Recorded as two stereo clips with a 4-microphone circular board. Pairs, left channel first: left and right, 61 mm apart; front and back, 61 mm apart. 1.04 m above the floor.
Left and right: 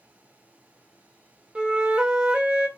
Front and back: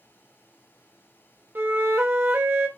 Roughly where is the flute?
Behind right.